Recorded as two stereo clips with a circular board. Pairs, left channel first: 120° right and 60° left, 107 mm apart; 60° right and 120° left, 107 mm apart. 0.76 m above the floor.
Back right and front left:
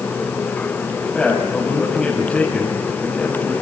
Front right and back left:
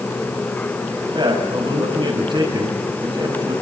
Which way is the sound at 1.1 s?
155° left.